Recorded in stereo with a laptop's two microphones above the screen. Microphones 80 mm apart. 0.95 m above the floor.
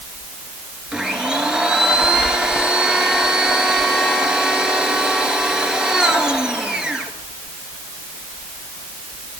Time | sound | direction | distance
0.9 | a blender | 5° right (ahead or behind) | 2.5 m